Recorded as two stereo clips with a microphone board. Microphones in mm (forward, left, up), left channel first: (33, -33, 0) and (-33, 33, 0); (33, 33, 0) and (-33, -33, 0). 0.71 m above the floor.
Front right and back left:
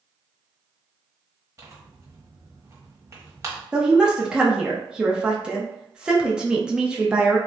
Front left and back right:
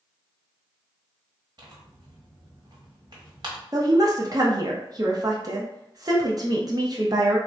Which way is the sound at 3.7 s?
145° right.